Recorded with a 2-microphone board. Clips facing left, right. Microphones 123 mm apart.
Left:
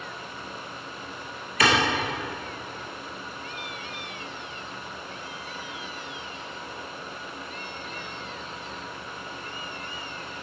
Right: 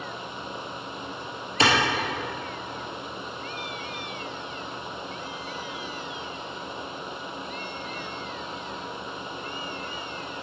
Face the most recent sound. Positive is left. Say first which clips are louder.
# even
turn(degrees=-25)  # may be behind; listen again after turning